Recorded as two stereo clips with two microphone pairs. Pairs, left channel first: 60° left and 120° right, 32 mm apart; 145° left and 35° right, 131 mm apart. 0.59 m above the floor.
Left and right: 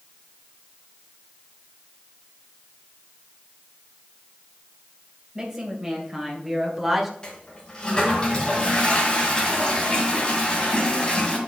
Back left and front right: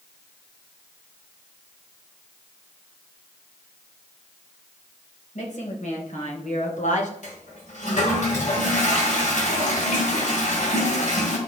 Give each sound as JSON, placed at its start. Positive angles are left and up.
{"t": 5.3, "sound": "a woman speaking", "azimuth_deg": 165, "distance_m": 3.0}
{"t": 7.2, "sound": "a toilet flushing", "azimuth_deg": 125, "distance_m": 2.5}